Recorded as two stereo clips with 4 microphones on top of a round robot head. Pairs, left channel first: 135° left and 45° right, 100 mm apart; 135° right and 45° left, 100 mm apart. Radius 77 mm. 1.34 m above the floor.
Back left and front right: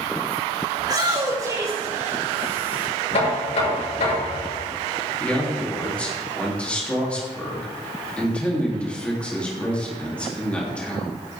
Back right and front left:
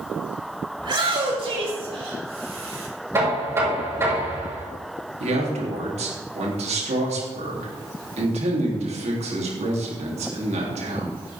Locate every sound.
0.8 s a shout: 5° left, 6 m; by 2.9 s 25° left, 8 m
3.1 s knocking: 110° left, 6.5 m
5.2 s a man speaking: 55° left, 3.5 m